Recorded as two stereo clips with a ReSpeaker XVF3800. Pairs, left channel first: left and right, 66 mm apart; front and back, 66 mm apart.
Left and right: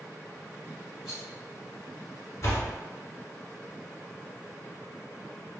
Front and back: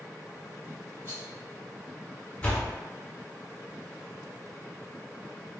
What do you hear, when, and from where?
1.1 s a rattle: 165° right, 1.7 m
2.4 s a door slam: 65° left, 1.1 m